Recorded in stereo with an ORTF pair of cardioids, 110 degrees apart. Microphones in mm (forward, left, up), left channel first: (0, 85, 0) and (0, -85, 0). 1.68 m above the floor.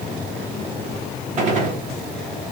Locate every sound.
1.4 s a gunshot: 45° right, 1.1 m